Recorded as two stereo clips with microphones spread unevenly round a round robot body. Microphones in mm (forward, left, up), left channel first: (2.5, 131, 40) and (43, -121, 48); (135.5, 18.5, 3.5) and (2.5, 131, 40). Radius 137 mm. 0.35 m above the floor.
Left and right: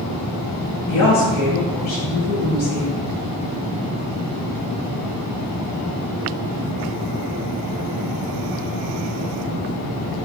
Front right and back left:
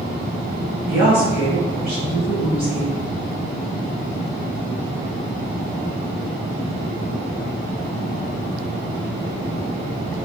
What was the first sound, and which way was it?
A woman speaking, 105° left.